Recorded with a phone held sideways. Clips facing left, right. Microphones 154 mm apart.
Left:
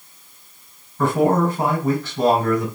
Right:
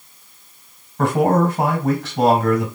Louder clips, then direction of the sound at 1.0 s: Right 1 dB; 80° right.